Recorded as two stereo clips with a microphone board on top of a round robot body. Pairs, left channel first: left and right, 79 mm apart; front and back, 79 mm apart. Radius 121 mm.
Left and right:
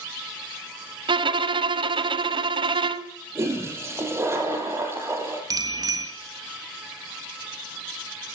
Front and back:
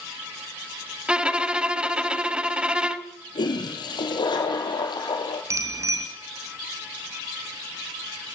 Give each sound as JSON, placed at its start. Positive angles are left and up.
{"t": 1.1, "sound": "a violin", "azimuth_deg": -105, "distance_m": 1.4}
{"t": 3.4, "sound": "a toilet flushing", "azimuth_deg": -30, "distance_m": 4.0}
{"t": 5.5, "sound": "a bicycle bell", "azimuth_deg": -130, "distance_m": 3.5}